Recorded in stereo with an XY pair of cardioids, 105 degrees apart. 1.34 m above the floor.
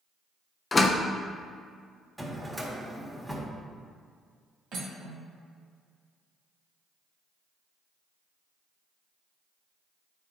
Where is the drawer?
10° right, 1.5 m.